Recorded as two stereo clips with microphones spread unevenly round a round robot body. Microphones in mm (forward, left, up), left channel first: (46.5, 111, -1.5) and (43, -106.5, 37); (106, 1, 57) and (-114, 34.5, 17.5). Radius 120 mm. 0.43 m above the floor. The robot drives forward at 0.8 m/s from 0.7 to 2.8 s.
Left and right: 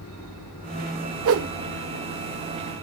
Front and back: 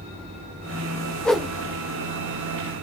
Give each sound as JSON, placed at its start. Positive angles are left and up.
{"t": 1.2, "sound": "a whoosh", "azimuth_deg": -100, "distance_m": 0.8}